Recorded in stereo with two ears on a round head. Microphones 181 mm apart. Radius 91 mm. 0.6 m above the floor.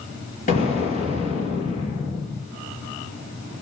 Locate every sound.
0.5 s an explosion: 35° left (ahead or behind), 4 m